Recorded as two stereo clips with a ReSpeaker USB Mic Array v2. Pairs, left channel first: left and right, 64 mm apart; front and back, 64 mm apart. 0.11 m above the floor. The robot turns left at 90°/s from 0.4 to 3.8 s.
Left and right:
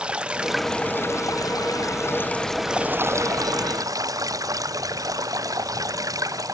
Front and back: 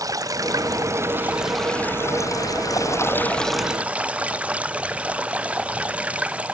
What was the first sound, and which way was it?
Running water, 165° right.